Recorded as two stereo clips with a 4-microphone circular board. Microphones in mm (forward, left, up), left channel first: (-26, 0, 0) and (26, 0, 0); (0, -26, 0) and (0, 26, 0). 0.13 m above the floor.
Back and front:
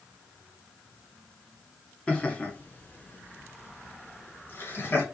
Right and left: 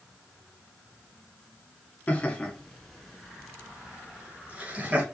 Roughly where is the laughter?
Behind right.